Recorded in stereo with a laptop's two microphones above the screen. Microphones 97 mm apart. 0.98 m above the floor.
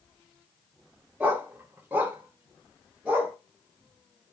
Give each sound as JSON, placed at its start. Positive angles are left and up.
{"t": 1.2, "sound": "a dog barking", "side_deg": -15, "distance_m": 0.6}